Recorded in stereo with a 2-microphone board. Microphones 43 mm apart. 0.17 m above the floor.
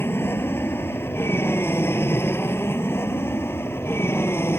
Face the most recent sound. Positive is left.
turn(degrees=70)  # may be behind; listen again after turning